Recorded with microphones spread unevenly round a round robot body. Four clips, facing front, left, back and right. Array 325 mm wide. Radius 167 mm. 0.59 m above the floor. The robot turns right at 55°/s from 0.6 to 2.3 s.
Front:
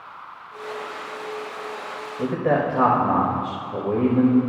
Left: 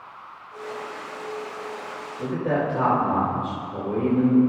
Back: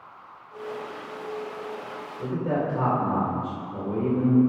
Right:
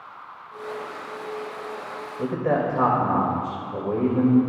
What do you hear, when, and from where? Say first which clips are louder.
2.2 s a man speaking: right 1 dB, front 6 dB; 25° right, 3.5 m; by 4.4 s 20° right, 3.5 m